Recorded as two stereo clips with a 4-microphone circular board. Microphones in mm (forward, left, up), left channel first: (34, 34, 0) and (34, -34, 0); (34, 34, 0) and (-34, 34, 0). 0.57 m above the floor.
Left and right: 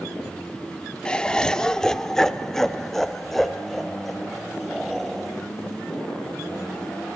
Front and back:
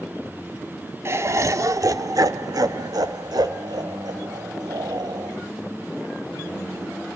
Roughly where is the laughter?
Behind left.